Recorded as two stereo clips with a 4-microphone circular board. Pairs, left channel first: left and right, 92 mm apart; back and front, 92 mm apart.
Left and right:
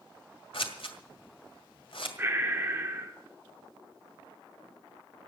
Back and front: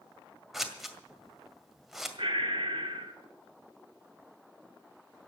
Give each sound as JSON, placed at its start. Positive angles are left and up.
{"t": 0.5, "sound": "scissors", "azimuth_deg": 85, "distance_m": 1.9}
{"t": 2.2, "sound": "breathing", "azimuth_deg": -25, "distance_m": 2.5}